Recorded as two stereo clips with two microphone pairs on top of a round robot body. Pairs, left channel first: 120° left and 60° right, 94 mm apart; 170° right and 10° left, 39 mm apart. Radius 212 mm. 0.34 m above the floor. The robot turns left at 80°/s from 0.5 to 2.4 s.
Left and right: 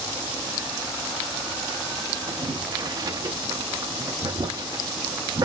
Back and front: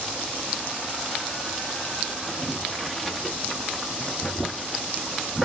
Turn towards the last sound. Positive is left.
turn(degrees=-90)